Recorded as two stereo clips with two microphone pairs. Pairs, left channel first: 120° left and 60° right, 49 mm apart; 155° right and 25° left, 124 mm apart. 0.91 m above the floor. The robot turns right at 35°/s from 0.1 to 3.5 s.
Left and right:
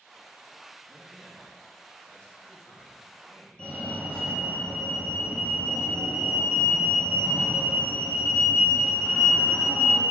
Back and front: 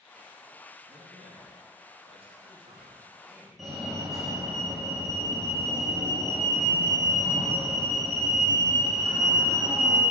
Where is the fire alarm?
105° left, 1.3 m.